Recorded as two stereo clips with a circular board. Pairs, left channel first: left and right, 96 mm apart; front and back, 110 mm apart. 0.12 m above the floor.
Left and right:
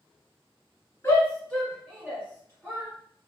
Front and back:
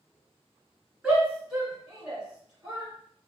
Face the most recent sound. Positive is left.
turn(degrees=-105)